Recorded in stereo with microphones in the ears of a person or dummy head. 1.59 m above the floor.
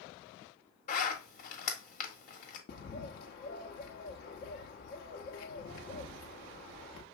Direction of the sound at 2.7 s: 60° left (ahead or behind).